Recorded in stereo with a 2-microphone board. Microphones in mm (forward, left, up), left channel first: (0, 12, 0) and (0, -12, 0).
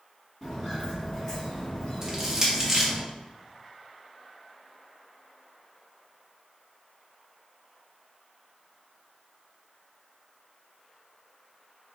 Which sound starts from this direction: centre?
Crushing, at 2.0 s.